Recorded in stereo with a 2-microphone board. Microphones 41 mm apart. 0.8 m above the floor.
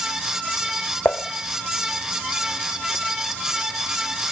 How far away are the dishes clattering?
About 0.9 m.